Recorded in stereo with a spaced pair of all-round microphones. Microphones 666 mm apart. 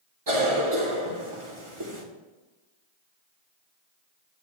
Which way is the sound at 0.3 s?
45° right (ahead or behind).